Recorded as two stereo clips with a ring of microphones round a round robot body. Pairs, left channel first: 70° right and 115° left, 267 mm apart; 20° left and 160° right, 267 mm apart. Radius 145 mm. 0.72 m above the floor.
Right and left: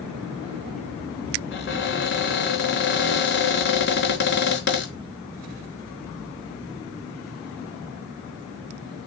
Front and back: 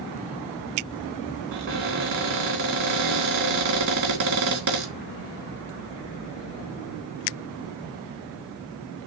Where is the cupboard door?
115° right, 3.5 m.